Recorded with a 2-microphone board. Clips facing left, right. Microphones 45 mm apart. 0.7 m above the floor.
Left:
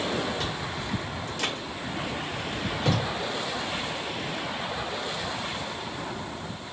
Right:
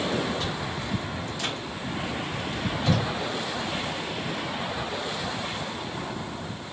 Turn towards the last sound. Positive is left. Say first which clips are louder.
# right 1 dB
turn(degrees=65)  # may be behind; listen again after turning